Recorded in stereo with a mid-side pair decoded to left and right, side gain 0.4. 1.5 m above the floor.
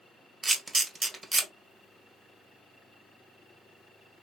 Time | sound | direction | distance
0.4 | a camera shutter | 35° right | 1.0 m